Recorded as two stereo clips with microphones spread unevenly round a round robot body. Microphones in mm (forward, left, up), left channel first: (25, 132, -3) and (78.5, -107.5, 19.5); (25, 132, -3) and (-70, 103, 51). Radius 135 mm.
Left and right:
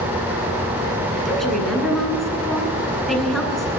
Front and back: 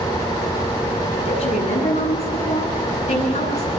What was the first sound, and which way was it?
A woman speaking, 15° left.